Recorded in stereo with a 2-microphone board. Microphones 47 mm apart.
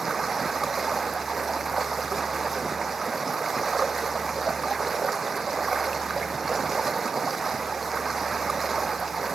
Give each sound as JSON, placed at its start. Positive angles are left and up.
{"t": 0.0, "sound": "running water", "side_deg": -5}